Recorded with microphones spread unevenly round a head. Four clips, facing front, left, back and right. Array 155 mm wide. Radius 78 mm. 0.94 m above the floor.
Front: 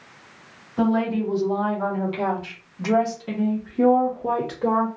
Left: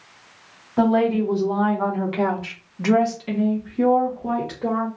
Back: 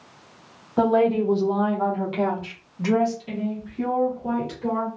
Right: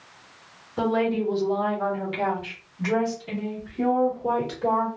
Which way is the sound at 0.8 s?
150° left.